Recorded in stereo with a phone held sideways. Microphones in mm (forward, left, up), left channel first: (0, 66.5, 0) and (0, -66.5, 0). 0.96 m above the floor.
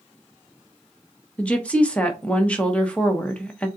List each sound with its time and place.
1.4 s a woman speaking: 10° left (ahead or behind), 0.9 m